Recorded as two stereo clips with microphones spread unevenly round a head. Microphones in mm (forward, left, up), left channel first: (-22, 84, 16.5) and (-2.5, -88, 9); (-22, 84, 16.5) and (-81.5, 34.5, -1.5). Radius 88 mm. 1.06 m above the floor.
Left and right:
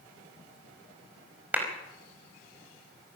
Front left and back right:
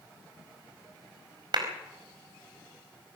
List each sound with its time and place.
1.5 s a clap: 165° right, 5 m